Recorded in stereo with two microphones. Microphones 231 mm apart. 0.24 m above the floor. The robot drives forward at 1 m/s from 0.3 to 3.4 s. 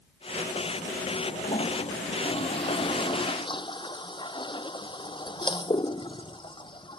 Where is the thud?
I don't hear a thud.